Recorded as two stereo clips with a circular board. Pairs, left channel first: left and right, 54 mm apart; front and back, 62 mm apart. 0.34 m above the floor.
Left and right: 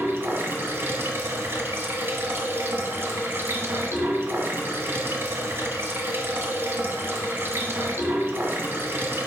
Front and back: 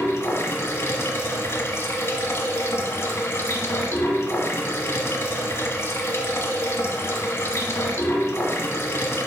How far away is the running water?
About 1.0 m.